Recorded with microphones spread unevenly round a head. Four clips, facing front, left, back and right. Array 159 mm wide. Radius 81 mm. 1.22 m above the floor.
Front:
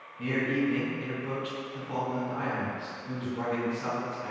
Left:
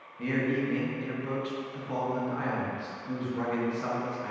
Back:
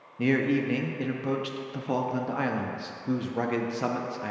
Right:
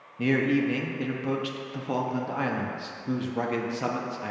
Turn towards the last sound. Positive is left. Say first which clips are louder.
# right 5 dB, back 4 dB
turn(degrees=-145)